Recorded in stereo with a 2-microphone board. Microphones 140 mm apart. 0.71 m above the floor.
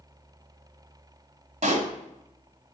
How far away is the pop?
About 1.5 m.